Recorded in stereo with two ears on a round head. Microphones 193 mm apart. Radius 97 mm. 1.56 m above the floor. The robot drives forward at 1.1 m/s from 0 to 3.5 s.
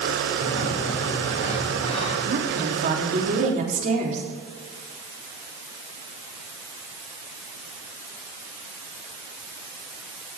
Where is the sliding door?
35° left (ahead or behind), 4 m; by 2.2 s 25° left (ahead or behind), 6 m.